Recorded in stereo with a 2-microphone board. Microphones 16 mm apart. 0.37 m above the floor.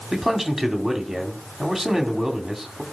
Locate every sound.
0.1 s a man speaking: 10° right (ahead or behind), 2.5 m